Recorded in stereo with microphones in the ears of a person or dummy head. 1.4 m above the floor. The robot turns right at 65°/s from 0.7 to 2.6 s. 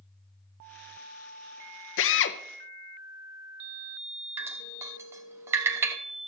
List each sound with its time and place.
2.0 s a drill: 55° left (ahead or behind), 0.6 m; by 2.4 s 45° left (ahead or behind), 0.6 m
4.4 s dripping: 15° right (ahead or behind), 0.9 m